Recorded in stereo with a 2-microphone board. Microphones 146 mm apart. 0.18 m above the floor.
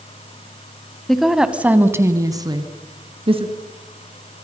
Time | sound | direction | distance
1.1 | a woman speaking | 5° left (ahead or behind) | 1.3 m